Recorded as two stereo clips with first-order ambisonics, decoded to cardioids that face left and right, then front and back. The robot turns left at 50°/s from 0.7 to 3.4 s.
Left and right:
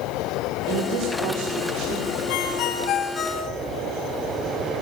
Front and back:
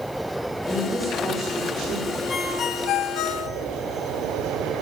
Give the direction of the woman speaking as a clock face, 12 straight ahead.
2 o'clock.